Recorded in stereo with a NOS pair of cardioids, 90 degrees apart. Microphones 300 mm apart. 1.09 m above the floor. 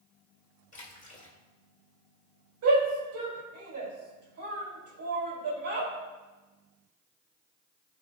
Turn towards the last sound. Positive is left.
turn(degrees=-65)